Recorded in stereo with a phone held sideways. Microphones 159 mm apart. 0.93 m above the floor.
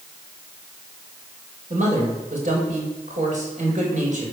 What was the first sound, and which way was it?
A man speaking, 55° right (ahead or behind).